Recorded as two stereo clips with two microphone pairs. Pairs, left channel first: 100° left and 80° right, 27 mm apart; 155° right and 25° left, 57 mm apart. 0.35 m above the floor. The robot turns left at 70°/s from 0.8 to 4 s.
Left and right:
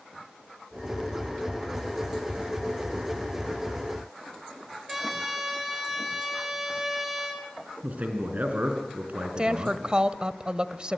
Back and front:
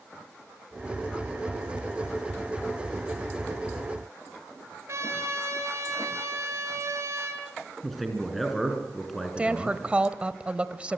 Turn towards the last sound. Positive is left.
turn(degrees=-40)